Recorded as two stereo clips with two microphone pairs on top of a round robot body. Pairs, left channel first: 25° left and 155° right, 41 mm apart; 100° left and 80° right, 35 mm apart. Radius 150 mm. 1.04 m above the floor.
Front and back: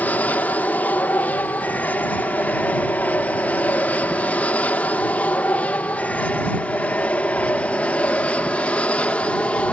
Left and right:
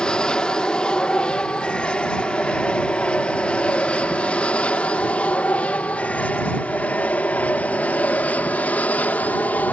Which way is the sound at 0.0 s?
35° left.